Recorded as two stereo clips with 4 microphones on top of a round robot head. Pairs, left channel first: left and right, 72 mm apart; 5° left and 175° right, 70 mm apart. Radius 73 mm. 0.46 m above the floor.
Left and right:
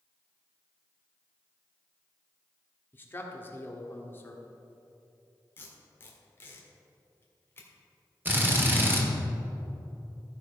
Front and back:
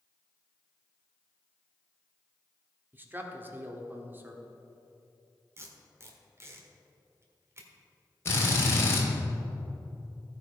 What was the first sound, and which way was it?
A man speaking, 140° left.